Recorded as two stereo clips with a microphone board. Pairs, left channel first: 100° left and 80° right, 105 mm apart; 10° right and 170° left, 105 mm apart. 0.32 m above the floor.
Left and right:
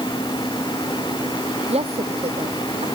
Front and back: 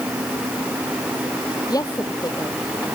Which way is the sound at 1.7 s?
65° right.